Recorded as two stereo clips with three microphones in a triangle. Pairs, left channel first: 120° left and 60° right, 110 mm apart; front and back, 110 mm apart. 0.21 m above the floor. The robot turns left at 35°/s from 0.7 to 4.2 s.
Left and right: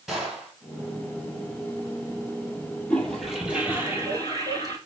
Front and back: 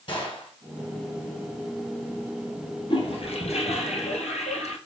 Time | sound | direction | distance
0.1 | a gunshot | 25° left | 2.5 m
2.9 | a toilet flushing | 40° left | 1.2 m